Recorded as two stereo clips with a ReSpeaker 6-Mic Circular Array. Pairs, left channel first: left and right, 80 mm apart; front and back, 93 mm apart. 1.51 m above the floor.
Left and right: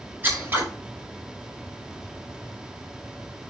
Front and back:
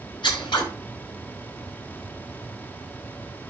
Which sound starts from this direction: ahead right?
Scissors, at 0.2 s.